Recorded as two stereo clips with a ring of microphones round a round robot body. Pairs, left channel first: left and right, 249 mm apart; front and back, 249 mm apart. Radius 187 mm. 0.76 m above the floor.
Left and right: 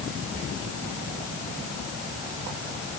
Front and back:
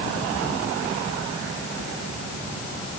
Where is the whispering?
170° left, 2.5 m.